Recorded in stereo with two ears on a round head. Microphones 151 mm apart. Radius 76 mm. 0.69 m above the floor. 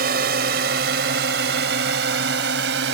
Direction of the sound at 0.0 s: 60° right (ahead or behind).